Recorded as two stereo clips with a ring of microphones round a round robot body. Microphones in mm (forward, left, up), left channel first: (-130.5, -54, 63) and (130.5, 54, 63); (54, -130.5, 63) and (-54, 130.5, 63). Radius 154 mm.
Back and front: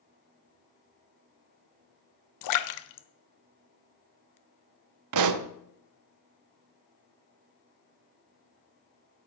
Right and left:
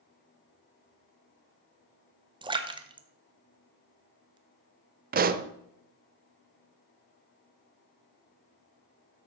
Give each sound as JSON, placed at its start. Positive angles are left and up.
{"t": 2.4, "sound": "a splash", "azimuth_deg": -175, "distance_m": 1.1}
{"t": 5.1, "sound": "a pop", "azimuth_deg": 50, "distance_m": 0.7}